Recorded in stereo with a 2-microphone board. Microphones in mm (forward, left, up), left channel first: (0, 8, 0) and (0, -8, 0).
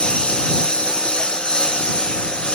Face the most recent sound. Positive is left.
turn(degrees=80)